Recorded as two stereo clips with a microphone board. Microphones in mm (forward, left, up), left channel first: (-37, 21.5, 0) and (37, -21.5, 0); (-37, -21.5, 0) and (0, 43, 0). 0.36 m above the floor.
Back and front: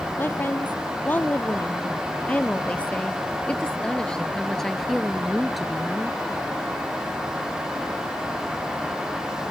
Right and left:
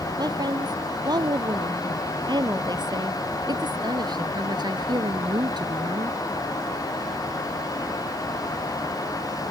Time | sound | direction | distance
0.2 | a woman speaking | 85° left | ?